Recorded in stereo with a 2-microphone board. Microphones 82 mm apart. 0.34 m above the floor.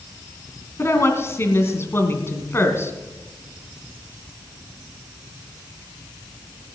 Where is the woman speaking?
30° left (ahead or behind), 2.5 m.